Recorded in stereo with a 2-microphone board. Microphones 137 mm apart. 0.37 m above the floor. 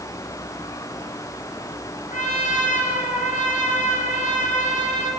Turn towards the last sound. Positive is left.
turn(degrees=65)  # may be behind; listen again after turning